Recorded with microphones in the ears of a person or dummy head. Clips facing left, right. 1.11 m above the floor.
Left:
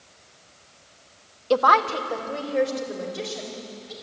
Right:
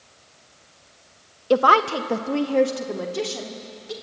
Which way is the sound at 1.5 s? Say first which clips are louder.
Right 2 dB; 10° right (ahead or behind).